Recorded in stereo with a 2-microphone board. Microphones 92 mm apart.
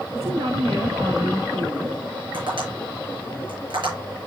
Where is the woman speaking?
75° right (ahead or behind), 1.7 m.